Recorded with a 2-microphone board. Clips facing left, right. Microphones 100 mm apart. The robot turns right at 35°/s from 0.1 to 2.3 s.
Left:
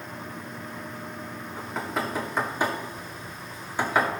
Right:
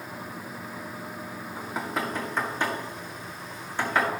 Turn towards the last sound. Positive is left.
turn(degrees=10)  # may be behind; listen again after turning